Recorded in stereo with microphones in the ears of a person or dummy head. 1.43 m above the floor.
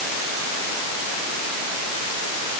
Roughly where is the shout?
No shout in this recording.